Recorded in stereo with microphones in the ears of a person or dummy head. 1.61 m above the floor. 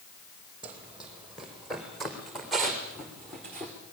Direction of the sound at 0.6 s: 10° right (ahead or behind).